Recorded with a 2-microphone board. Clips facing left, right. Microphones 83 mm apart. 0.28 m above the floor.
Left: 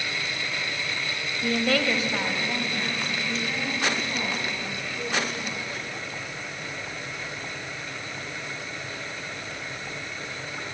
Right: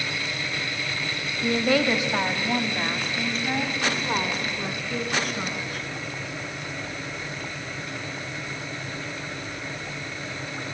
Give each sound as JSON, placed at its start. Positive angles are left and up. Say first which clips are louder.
{"t": 1.4, "sound": "a woman speaking", "louder": "right 2 dB", "side_deg": 0, "distance_m": 1.3}